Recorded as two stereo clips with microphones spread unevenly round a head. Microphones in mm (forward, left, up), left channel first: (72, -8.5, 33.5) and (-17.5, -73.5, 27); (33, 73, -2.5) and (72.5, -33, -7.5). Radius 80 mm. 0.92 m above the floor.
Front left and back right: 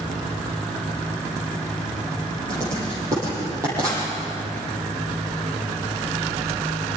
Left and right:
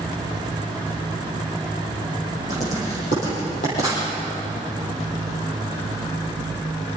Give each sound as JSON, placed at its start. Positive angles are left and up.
{"t": 2.5, "sound": "writing", "azimuth_deg": 145, "distance_m": 10.0}